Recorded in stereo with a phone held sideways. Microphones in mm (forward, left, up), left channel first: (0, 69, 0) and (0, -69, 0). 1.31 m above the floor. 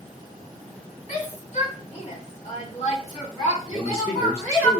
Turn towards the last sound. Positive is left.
turn(degrees=50)  # may be behind; listen again after turning